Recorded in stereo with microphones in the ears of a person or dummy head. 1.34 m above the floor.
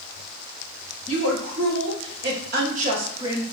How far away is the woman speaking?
About 1.5 m.